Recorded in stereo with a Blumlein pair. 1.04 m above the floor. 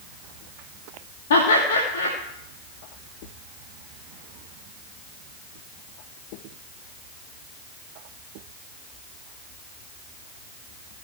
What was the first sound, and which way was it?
Laughter, 60° left.